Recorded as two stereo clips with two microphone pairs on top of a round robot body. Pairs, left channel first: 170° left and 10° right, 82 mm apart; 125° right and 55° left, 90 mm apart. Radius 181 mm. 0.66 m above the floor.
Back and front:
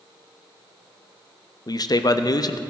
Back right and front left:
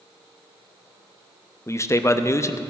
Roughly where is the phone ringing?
No phone ringing in this recording.